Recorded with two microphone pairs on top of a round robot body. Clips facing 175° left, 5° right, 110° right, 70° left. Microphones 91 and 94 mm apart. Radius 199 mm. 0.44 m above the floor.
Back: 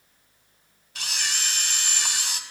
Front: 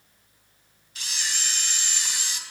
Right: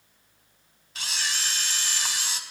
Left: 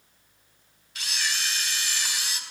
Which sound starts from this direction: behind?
A camera shutter, at 0.9 s.